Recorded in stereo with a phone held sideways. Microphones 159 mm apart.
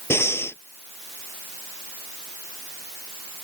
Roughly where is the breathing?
Centre.